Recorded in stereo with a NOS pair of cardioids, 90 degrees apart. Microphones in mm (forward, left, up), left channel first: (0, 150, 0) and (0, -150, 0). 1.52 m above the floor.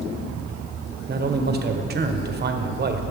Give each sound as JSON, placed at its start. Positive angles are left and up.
{"t": 1.1, "sound": "a man speaking", "azimuth_deg": -35, "distance_m": 1.1}